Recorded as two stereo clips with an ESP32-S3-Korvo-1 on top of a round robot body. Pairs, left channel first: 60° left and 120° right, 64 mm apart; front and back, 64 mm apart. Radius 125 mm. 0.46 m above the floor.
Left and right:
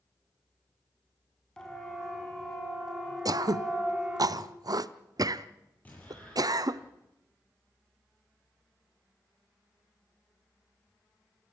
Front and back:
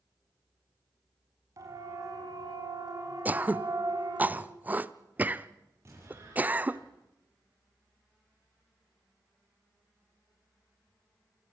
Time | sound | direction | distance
1.6 | a siren | 140° left | 5 m
3.2 | throat clearing | 115° right | 0.7 m
5.8 | an explosion | 130° left | 8 m